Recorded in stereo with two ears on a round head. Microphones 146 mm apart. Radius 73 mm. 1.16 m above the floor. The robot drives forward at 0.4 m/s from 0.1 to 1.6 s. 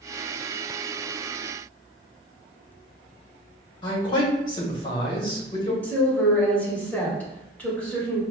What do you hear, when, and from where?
3.8 s a man speaking: 30° left (ahead or behind), 1.1 m
5.8 s a woman speaking: 10° left (ahead or behind), 1.2 m